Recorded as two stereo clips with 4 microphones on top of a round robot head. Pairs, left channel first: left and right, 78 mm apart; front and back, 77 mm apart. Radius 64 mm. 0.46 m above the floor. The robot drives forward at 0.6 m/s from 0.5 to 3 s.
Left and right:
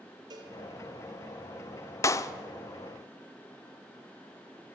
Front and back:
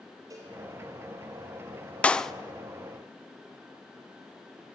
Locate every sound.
0.3 s a cowbell: 120° right, 3.5 m
2.0 s a clap: 65° left, 0.7 m; by 2.3 s 85° left, 0.7 m